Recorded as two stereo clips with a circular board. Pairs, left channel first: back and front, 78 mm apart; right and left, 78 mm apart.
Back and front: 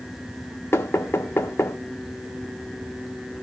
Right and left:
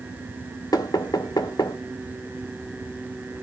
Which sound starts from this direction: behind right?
Knocking, at 0.7 s.